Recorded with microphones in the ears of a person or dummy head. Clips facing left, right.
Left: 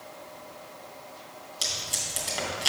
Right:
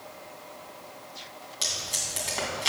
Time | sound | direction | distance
1.6 | tape being pulled | 10° left (ahead or behind) | 2.5 m